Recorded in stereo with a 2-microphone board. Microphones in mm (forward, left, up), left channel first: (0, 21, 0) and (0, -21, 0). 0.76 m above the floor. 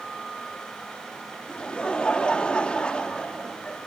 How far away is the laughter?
About 1.4 m.